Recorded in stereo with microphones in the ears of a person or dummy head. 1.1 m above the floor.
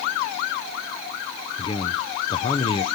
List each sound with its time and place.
1.6 s a man speaking: 25° left (ahead or behind), 0.8 m